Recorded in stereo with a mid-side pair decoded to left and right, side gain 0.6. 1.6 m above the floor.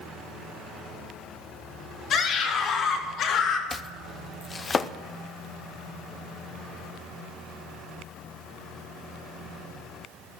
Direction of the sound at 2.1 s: 55° left.